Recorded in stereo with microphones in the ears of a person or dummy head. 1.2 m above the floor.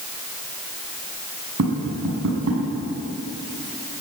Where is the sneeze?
No sneeze in this recording.